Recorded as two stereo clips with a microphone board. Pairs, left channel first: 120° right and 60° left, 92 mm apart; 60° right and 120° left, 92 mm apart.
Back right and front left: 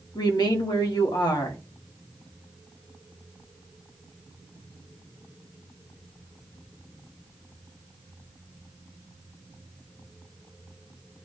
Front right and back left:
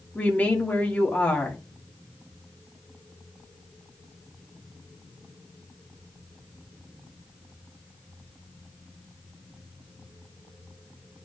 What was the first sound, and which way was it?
A woman speaking, 125° right.